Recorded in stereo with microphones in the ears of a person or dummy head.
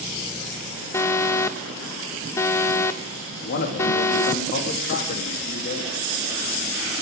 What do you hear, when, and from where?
0.9 s an alarm: 15° left (ahead or behind), 0.6 m
3.4 s a man speaking: 50° left (ahead or behind), 2.5 m